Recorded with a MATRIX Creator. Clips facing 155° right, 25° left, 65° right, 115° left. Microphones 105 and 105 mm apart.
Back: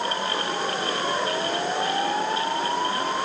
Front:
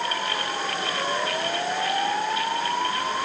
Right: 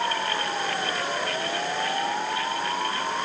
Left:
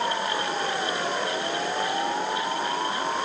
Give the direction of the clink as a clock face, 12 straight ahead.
I don't hear a clink.